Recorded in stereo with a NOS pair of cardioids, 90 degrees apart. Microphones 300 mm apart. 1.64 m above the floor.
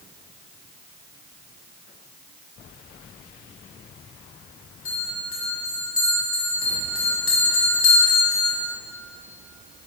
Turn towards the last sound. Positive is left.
turn(degrees=45)